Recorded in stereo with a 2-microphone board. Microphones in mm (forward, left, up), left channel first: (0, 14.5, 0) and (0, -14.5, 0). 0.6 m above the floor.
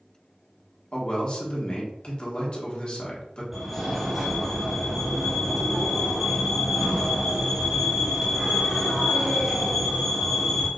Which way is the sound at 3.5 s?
10° right (ahead or behind).